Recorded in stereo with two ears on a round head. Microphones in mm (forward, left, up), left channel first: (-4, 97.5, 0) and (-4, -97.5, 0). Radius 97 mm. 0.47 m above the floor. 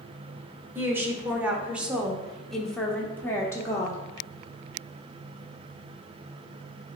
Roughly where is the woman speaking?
Centre.